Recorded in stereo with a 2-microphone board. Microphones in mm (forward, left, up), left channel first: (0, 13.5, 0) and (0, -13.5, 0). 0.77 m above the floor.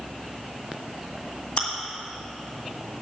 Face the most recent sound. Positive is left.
turn(degrees=45)  # may be behind; listen again after turning